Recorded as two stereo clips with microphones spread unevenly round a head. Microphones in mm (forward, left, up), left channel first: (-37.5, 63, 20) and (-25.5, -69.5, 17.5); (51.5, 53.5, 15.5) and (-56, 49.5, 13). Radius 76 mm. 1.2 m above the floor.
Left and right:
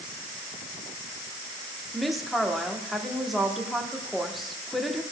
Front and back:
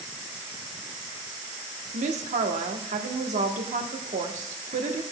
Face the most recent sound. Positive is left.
turn(degrees=-175)